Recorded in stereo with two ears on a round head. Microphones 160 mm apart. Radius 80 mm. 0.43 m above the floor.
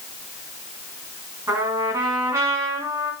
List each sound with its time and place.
1.5 s a trumpet: 15° right (ahead or behind), 4 m